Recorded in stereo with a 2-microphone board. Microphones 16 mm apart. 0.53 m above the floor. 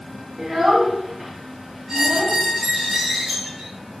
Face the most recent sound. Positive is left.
turn(degrees=-30)  # may be behind; listen again after turning